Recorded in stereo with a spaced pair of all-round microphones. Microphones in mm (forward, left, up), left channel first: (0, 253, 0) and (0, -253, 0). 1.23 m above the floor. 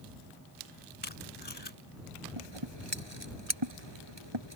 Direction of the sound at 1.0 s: 55° left (ahead or behind).